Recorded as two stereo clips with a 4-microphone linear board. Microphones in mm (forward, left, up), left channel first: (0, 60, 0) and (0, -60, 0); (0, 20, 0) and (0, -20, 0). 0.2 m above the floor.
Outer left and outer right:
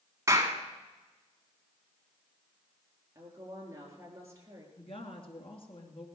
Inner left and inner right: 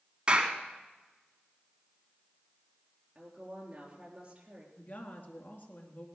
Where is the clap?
25° right (ahead or behind), 1.7 m.